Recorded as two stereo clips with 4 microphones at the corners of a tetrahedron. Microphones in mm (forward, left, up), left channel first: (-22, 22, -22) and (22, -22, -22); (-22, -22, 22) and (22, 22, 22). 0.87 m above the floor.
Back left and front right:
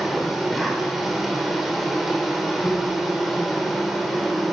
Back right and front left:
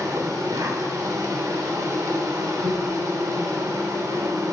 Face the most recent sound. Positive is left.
turn(degrees=45)